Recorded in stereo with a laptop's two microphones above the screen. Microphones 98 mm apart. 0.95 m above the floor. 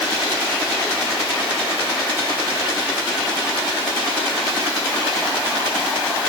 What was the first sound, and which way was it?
Only background noise.